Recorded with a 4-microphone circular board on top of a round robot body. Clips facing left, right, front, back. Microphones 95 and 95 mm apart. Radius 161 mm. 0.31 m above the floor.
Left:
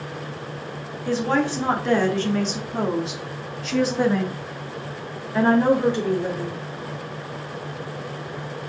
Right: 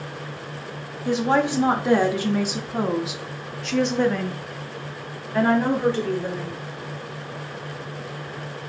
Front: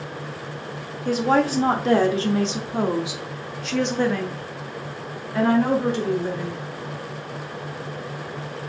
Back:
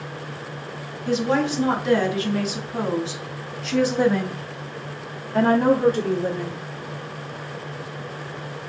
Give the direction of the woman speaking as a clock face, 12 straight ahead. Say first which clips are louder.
Right 1 dB, front 2 dB; 1 o'clock.